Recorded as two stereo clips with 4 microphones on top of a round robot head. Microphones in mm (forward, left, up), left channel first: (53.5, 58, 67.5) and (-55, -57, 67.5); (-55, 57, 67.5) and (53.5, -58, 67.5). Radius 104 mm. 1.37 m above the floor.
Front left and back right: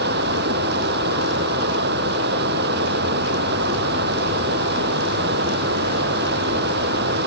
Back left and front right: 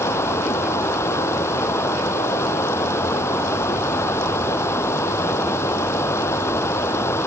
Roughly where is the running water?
Behind right.